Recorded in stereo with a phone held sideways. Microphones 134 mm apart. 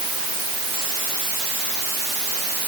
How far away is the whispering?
I don't hear whispering.